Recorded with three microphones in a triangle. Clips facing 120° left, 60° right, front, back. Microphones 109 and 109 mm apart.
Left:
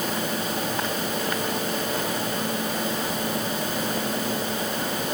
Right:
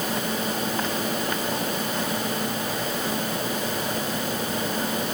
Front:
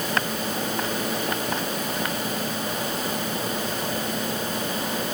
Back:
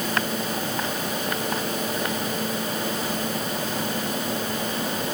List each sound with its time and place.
Only background noise.